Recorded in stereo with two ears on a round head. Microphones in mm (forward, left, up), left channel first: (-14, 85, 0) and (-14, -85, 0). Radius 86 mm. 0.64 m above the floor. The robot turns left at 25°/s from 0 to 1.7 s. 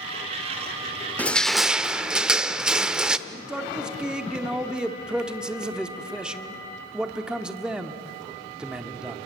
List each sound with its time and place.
1.2 s crushing: 10° left (ahead or behind), 0.6 m; by 3.2 s 5° right (ahead or behind), 0.6 m
3.3 s a man speaking: 5° right (ahead or behind), 1.3 m